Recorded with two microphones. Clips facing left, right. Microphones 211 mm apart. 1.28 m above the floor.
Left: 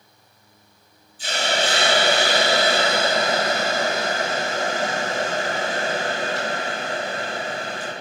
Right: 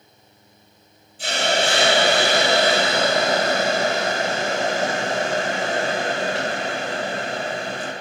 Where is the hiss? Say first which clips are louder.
Right 2 dB; 85° right, 5 m.